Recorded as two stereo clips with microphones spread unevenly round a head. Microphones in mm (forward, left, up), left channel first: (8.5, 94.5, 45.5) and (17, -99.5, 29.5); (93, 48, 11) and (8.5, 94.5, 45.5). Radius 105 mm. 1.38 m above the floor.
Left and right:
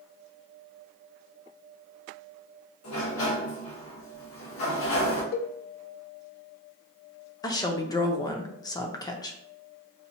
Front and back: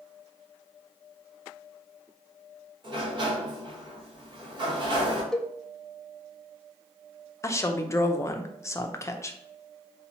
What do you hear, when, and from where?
2.8 s a sliding door: 110° left, 1.3 m
5.3 s a cowbell: 50° left, 0.5 m
7.4 s a woman speaking: 20° left, 0.7 m